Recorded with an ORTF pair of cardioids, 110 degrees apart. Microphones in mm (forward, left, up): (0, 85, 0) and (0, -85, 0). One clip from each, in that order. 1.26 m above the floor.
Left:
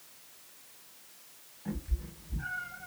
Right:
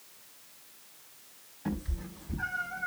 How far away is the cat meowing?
About 5 m.